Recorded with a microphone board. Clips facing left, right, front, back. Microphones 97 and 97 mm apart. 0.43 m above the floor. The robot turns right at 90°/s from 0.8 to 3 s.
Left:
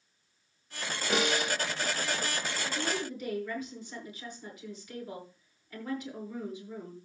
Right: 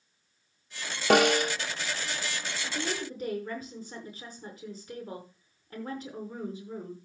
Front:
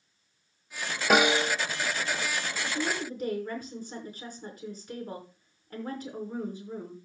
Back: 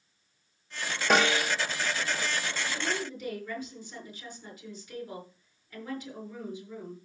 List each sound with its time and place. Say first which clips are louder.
1.1 s a snare drum: right 8 dB, front 2 dB; 85° right, 1.1 m; by 1.6 s 45° right, 1.1 m
2.6 s a woman speaking: right 1 dB, front 2 dB; 70° right, 5.5 m; by 7.0 s 40° right, 5.5 m